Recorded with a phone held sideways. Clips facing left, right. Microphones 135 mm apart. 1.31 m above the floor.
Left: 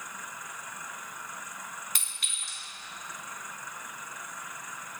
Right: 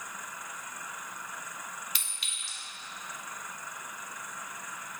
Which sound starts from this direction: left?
A clink, at 1.9 s.